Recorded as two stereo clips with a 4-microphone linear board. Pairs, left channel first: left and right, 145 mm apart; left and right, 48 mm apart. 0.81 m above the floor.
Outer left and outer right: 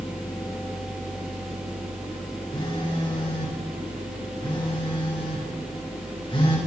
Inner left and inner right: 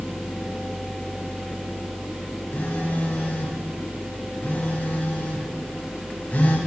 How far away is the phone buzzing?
About 1.3 m.